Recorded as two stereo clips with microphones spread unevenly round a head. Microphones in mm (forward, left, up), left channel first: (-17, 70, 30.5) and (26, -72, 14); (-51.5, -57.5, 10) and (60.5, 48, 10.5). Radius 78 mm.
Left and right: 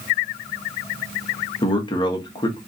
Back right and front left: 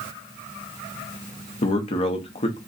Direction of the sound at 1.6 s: 170° left.